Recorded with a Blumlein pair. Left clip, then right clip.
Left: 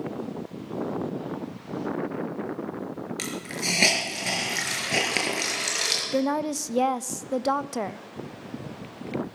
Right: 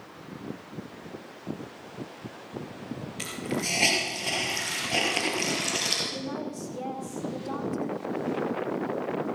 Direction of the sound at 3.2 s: 60° left.